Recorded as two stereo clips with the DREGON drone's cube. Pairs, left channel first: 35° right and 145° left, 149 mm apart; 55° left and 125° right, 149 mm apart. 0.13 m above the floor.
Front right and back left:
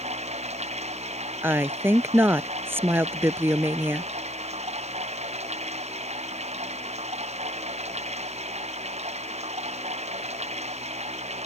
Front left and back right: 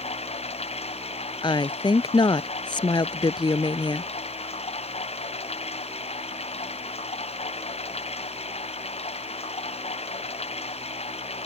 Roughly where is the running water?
Left.